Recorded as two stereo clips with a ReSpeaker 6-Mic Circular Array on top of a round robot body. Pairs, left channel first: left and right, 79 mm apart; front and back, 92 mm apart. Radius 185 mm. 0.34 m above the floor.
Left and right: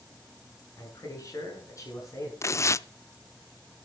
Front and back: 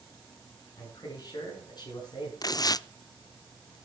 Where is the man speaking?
45° left, 7 m; by 2.3 s 40° left, 8 m.